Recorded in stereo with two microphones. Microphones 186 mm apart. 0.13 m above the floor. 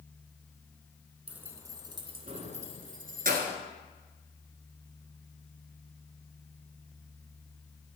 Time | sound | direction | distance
1.3 | keys jangling | 5° right (ahead or behind) | 1.1 m